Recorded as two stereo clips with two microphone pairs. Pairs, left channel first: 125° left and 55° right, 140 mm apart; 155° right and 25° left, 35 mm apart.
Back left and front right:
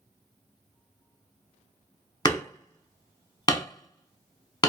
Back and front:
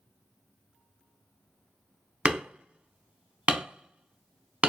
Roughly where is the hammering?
Left.